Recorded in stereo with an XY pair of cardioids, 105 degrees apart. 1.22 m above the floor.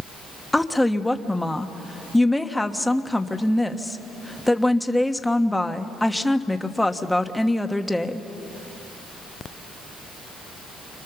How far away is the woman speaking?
About 1.3 m.